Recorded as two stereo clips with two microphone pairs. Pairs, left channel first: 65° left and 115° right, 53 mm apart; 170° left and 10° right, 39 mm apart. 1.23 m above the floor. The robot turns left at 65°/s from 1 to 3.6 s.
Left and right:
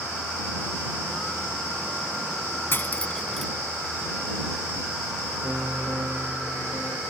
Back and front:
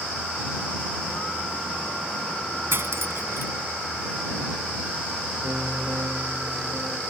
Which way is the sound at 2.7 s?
15° left.